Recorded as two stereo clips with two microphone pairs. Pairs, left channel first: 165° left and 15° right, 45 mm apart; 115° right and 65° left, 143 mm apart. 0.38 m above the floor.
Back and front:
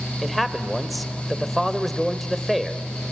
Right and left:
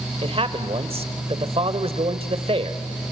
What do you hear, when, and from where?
0.2 s a man speaking: 80° left, 1.2 m